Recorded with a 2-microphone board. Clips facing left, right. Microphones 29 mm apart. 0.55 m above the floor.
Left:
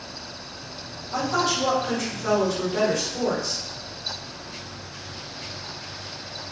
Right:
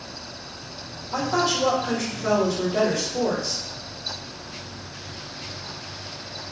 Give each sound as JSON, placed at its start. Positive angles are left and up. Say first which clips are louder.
{"t": 1.1, "sound": "a woman speaking", "louder": "right 1 dB", "side_deg": -10, "distance_m": 1.3}